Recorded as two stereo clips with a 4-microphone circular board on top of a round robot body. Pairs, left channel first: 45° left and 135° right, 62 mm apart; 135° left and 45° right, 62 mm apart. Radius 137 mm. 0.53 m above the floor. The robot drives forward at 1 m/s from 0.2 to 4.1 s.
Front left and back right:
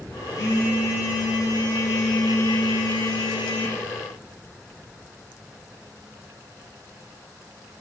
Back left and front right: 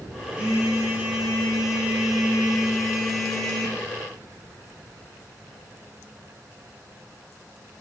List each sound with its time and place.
0.3 s a phone buzzing: 25° left, 6 m; by 3.8 s 55° left, 3 m